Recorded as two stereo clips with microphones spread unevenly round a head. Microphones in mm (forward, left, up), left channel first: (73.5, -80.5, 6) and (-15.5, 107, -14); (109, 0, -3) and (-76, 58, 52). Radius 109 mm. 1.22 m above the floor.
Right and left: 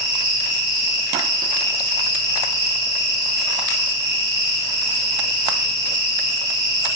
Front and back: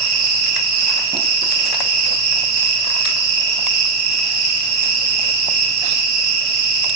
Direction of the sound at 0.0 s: 170° right.